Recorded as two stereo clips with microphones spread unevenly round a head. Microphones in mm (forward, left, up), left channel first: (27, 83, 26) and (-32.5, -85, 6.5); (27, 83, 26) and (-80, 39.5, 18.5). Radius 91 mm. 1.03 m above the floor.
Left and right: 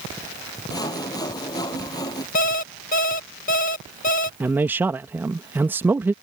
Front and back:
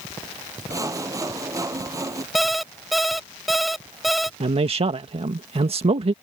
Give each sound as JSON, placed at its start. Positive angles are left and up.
{"t": 0.7, "sound": "sawing", "azimuth_deg": 140}
{"t": 2.4, "sound": "an alarm clock", "azimuth_deg": 110}
{"t": 4.4, "sound": "a man speaking", "azimuth_deg": 175}